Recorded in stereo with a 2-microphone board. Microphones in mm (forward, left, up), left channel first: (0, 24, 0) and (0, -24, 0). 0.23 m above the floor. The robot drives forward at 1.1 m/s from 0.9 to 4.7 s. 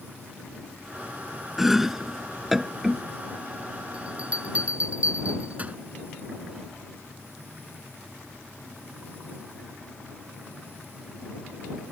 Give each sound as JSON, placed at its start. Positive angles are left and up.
{"t": 1.6, "sound": "chopping", "side_deg": -5}
{"t": 3.9, "sound": "a bell", "side_deg": -25}